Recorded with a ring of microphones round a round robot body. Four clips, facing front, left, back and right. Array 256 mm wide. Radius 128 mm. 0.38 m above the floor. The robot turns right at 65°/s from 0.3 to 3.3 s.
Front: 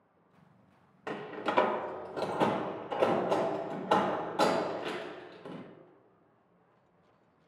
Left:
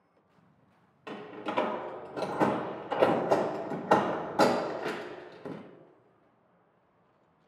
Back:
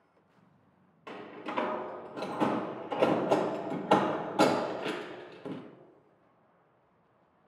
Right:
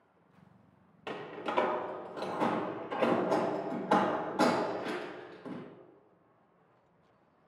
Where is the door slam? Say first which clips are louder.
Even, front 5 dB; 25° right, 0.8 m; by 5.6 s 120° left, 0.8 m.